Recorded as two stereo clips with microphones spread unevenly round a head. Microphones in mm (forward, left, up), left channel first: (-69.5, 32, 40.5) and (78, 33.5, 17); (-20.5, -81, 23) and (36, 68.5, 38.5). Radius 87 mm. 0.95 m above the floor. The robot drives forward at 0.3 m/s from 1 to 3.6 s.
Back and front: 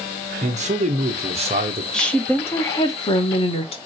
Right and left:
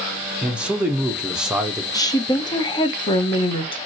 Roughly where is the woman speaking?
Right.